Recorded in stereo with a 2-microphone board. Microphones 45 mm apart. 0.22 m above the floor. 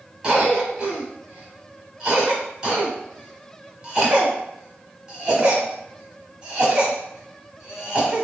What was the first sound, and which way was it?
A cough, 20° right (ahead or behind).